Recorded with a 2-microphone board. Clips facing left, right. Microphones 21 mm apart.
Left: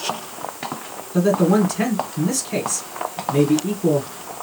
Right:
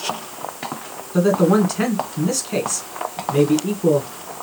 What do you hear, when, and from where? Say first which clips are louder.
1.1 s a man speaking: right 1 dB; 20° right (ahead or behind), 1.4 m